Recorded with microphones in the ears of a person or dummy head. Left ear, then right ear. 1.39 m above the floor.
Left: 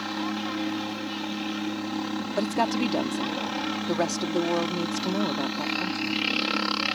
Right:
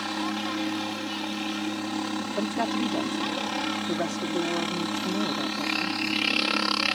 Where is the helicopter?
20° right (ahead or behind).